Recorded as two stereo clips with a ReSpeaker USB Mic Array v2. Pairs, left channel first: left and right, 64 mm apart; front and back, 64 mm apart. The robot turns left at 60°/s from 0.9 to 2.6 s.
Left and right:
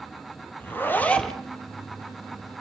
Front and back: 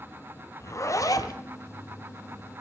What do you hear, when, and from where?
0.6 s a zipper: 35° left, 1.6 m; by 1.4 s straight ahead, 1.6 m